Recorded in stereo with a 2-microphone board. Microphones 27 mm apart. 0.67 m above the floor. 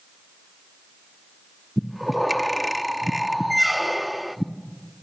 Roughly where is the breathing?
Centre.